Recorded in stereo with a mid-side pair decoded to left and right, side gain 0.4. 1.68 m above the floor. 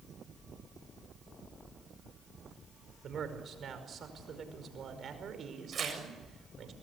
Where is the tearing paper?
55° right, 7 m.